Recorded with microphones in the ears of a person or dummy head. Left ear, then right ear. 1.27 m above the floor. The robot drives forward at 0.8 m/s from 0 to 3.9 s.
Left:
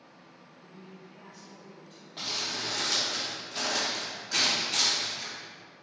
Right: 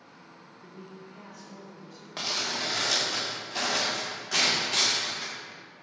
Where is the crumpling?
55° right (ahead or behind), 1.4 m; by 5.3 s 30° right (ahead or behind), 2.5 m.